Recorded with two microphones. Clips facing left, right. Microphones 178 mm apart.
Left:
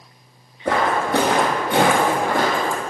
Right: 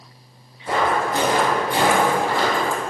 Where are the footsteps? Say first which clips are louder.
Left 1 dB; 70° left (ahead or behind), 1.9 m; by 2.8 s 40° left (ahead or behind), 1.6 m.